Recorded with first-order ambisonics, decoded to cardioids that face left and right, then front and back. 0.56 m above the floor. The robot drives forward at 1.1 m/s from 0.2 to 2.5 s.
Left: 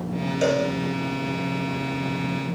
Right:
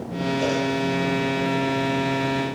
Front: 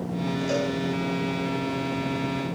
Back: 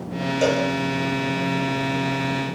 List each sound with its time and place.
0.4 s a cowbell: 145° left, 8 m